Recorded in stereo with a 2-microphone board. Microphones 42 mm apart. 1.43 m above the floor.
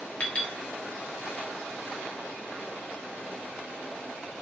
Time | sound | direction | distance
0.2 | a clink | 30° left (ahead or behind) | 0.9 m